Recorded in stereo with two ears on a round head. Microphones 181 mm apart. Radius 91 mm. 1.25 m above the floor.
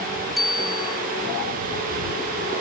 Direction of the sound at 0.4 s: Centre (ahead or behind).